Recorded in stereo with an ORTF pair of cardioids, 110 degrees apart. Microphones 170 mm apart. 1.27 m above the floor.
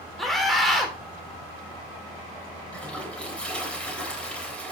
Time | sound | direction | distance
0.2 | a scream | straight ahead | 3.5 m
2.7 | a toilet flushing | 5° left | 3.5 m